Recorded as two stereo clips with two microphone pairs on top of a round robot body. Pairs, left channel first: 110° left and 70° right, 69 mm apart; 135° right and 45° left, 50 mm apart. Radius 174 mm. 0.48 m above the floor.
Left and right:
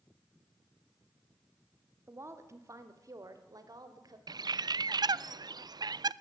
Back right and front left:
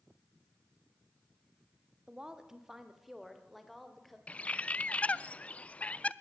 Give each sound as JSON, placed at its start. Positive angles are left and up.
{"t": 2.1, "sound": "a woman speaking", "azimuth_deg": -25, "distance_m": 2.0}
{"t": 4.3, "sound": "a bird", "azimuth_deg": -70, "distance_m": 0.5}